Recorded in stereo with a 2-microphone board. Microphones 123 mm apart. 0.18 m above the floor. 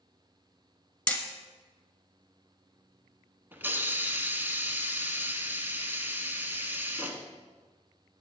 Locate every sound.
1.1 s hammering: 10° left (ahead or behind), 1.4 m
3.5 s a hiss: 15° right (ahead or behind), 1.0 m